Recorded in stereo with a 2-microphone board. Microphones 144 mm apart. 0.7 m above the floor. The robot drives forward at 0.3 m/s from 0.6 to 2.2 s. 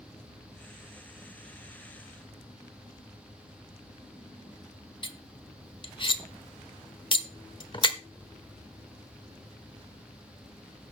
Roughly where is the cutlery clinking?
Left.